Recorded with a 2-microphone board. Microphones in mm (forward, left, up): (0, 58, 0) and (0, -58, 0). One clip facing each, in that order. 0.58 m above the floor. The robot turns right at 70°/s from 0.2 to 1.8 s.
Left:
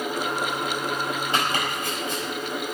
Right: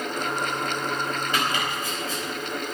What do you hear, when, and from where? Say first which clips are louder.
1.3 s chopping: left 1 dB; 25° left (ahead or behind), 4 m; by 2.8 s 55° left (ahead or behind), 4 m